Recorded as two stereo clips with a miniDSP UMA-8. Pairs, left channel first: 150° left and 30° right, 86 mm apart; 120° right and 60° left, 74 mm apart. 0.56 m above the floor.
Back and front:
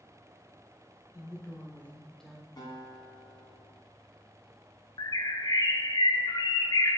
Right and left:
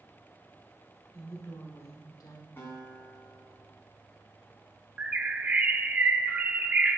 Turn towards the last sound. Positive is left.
turn(degrees=125)